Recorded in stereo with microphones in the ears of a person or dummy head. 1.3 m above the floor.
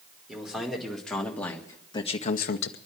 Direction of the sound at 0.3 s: 10° right (ahead or behind).